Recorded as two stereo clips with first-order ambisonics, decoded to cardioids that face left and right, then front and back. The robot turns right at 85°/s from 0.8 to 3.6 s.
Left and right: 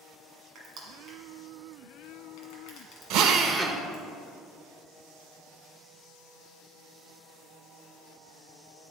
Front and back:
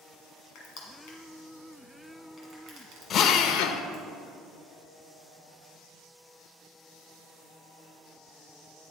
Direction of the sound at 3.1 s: 60° right.